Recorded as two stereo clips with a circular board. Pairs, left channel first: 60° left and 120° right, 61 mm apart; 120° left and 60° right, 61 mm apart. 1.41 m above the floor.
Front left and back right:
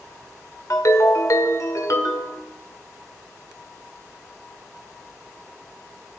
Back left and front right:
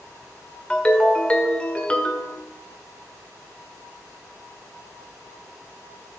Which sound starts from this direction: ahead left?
A ringtone, at 0.7 s.